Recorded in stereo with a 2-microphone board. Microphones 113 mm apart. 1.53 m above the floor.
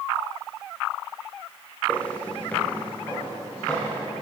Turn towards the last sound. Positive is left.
turn(degrees=15)  # may be behind; listen again after turning